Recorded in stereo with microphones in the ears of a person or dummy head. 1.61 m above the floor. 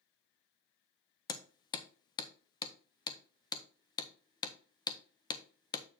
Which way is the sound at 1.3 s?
20° left (ahead or behind).